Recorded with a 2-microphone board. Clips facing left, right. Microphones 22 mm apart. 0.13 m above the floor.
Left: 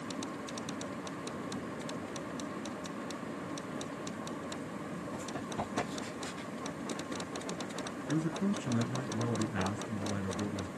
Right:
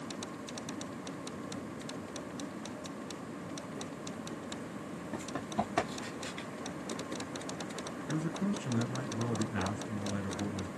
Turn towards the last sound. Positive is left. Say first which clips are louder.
# left 2 dB
turn(degrees=5)  # may be behind; listen again after turning